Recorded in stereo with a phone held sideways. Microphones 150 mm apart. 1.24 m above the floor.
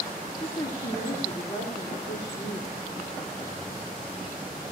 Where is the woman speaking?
65° left (ahead or behind), 3 m; by 2.7 s 85° left, 4 m.